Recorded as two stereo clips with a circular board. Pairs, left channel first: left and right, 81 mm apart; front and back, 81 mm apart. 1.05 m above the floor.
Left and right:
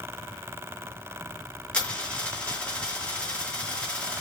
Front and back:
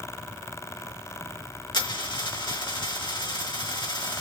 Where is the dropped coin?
15° left, 2.5 m.